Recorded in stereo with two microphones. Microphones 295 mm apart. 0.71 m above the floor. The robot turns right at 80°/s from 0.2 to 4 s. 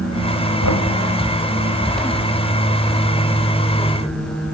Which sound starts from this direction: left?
Knocking, at 0.6 s.